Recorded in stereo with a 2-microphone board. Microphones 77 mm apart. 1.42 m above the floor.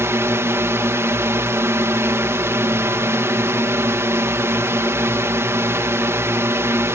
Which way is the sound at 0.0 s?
35° right (ahead or behind).